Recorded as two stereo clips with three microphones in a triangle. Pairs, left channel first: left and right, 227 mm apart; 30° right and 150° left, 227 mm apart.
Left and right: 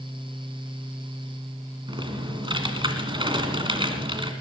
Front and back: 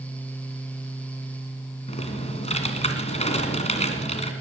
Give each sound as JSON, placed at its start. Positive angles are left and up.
{"t": 1.9, "sound": "typing on a keyboard", "azimuth_deg": -45, "distance_m": 1.6}